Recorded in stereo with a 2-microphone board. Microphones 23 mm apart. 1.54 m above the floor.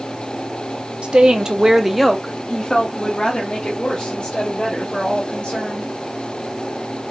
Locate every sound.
1.0 s a woman speaking: 50° right (ahead or behind), 0.7 m; by 5.9 s 60° left (ahead or behind), 2 m